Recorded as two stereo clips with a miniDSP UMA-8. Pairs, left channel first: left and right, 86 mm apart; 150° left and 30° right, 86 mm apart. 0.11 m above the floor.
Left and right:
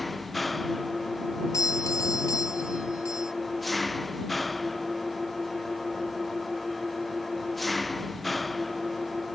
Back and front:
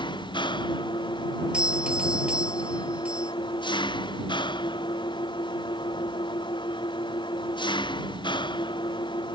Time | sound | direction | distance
0.0 | an engine running | straight behind | ?
1.5 | a doorbell | 45° left | ?